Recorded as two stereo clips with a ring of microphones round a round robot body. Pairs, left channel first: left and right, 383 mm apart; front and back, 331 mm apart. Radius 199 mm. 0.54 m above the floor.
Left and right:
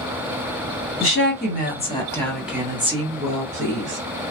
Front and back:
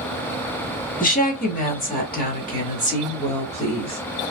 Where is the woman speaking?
55° left, 1.4 m; by 4.0 s 65° right, 1.4 m.